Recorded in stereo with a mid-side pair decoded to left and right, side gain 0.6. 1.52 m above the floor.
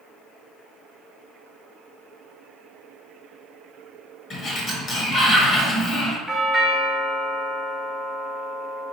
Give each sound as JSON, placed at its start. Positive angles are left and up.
{"t": 4.3, "sound": "a sliding door", "azimuth_deg": 45, "distance_m": 1.2}
{"t": 6.3, "sound": "a doorbell", "azimuth_deg": 0, "distance_m": 0.9}